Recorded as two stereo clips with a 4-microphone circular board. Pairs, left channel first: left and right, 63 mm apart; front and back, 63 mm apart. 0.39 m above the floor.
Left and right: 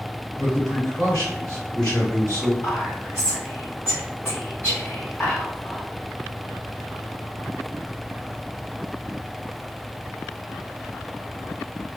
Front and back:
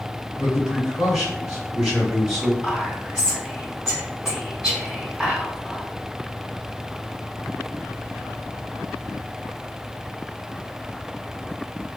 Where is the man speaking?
95° left, 1.8 m.